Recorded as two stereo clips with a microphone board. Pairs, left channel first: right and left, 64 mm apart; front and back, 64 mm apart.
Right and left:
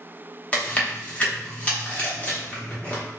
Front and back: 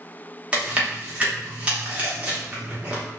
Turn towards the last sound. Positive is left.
turn(degrees=-130)